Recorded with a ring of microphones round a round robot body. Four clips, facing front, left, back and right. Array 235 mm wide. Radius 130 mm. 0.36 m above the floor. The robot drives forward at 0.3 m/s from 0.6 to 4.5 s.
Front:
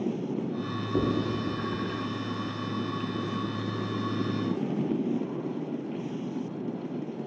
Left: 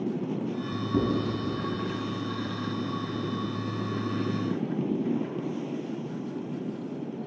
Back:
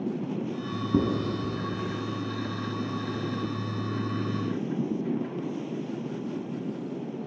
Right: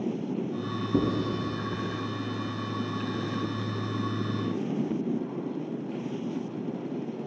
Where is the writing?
165° right, 1.6 m; by 1.9 s 170° right, 1.9 m.